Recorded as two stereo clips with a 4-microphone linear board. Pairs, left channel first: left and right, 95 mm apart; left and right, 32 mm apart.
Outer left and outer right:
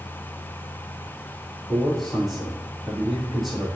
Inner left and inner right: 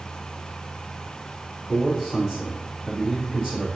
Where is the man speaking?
Centre (ahead or behind), 3 m.